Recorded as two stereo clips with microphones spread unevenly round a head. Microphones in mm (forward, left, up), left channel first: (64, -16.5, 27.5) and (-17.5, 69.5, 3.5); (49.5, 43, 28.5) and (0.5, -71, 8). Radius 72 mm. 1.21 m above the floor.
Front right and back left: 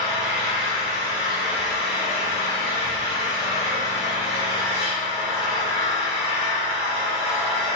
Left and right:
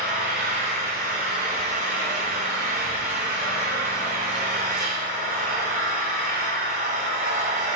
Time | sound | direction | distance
0.0 | an engine running | 90° right | 1.7 m